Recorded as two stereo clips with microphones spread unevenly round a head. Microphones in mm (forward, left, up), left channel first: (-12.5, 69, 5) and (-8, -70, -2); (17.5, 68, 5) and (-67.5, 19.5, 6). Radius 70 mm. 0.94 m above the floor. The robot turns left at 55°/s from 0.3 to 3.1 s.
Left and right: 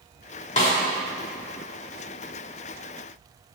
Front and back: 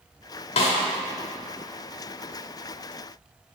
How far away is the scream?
No scream in this recording.